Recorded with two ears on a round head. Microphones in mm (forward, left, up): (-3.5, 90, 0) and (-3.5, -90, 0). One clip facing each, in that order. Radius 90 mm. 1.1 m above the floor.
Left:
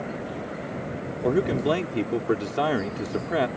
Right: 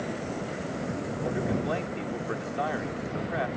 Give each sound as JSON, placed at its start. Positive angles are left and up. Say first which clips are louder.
{"t": 1.2, "sound": "a man speaking", "louder": "left 8 dB", "side_deg": 70}